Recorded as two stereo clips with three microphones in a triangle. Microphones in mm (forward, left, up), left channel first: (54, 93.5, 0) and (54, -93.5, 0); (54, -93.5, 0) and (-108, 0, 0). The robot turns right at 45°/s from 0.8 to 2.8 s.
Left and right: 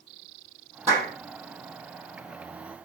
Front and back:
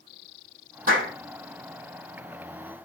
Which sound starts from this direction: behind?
A clap, at 0.9 s.